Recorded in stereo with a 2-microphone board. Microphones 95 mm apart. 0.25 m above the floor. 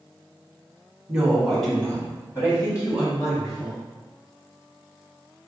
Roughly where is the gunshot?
No gunshot in this recording.